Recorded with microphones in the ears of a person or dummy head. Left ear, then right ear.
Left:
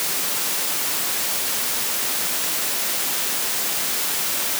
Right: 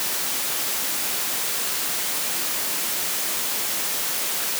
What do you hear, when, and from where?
Only background noise.